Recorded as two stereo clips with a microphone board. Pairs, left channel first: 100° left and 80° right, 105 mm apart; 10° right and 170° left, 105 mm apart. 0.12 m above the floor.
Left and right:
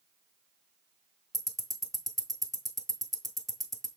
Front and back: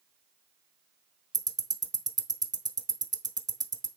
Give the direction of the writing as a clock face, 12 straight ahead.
I don't hear writing.